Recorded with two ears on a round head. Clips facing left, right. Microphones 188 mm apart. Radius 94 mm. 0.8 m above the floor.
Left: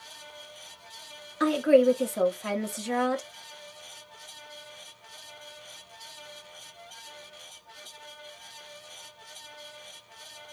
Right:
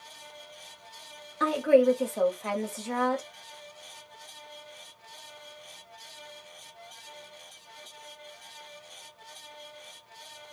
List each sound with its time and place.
1.4 s a woman speaking: 10° left (ahead or behind), 1.1 m